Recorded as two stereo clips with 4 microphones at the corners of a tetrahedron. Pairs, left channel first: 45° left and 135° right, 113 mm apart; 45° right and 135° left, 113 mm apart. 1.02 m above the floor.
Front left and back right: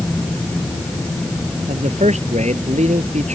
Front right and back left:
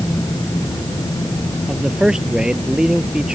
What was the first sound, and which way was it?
A man speaking, 140° right.